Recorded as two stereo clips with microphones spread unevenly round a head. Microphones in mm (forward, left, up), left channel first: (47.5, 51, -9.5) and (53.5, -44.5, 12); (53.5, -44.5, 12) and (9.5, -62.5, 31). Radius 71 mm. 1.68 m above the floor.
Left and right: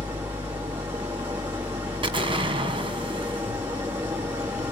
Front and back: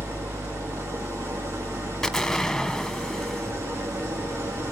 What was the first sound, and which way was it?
An engine running, 150° right.